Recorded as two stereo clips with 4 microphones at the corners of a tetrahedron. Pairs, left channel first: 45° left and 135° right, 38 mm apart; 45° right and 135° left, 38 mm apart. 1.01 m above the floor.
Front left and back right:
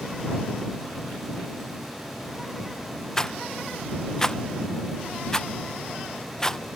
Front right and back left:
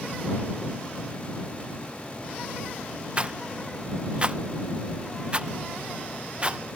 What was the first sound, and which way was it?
A rattle, 105° left.